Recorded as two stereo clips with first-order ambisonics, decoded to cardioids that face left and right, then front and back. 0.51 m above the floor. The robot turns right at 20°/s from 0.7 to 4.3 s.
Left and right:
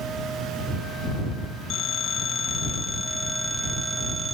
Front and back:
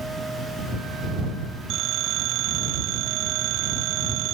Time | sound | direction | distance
1.7 | a phone ringing | 140° left | ?